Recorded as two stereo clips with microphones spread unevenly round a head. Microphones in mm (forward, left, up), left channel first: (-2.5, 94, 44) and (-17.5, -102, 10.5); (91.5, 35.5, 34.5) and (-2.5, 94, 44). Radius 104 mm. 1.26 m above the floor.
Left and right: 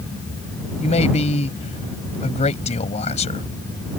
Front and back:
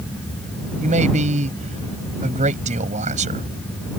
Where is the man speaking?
145° left.